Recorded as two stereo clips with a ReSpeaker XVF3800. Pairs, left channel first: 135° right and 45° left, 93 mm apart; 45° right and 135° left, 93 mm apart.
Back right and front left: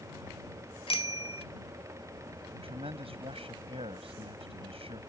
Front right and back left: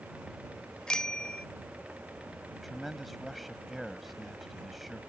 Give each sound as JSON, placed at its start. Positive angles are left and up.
{"t": 0.9, "sound": "a bicycle bell", "azimuth_deg": -125}
{"t": 2.5, "sound": "a man speaking", "azimuth_deg": 45}